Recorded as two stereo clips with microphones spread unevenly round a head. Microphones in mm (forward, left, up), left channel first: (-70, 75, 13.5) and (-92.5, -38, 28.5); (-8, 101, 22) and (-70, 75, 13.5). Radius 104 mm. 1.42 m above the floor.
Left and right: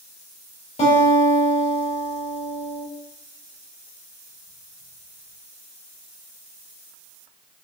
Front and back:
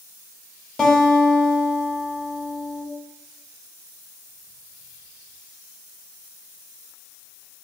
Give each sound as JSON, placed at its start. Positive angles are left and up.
{"t": 0.8, "sound": "a guitar", "azimuth_deg": 100, "distance_m": 2.5}